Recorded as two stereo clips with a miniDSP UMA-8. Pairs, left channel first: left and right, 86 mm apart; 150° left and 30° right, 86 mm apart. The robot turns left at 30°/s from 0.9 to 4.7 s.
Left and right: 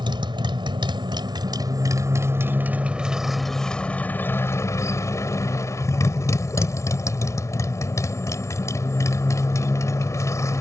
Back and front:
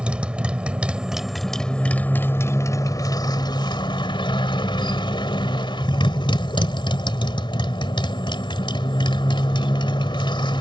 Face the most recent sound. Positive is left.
turn(degrees=140)